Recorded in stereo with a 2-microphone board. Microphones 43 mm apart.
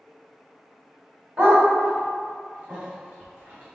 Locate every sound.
1.4 s a dog barking: 35° right (ahead or behind), 2.0 m